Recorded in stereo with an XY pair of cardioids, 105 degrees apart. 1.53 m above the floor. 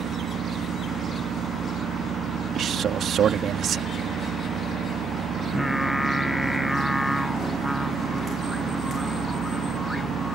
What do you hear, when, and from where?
0.0 s a machine running: 60° right
2.5 s a man speaking: 55° right
5.4 s singing: 5° left